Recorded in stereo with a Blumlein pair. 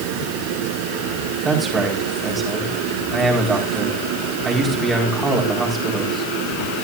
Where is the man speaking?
15° right, 4.5 m.